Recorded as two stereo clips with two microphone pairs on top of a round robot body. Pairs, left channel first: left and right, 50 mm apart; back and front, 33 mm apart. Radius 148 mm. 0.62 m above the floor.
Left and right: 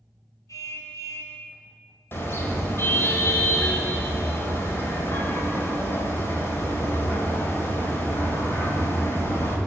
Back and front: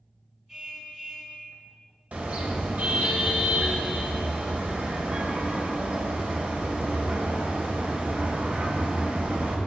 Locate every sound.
0.5 s a car horn: 75° left, 3.5 m
2.1 s a car horn: 45° left, 2 m